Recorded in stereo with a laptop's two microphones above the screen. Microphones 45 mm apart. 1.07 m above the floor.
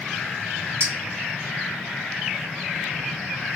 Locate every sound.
0.8 s a clink: 65° right (ahead or behind), 1.1 m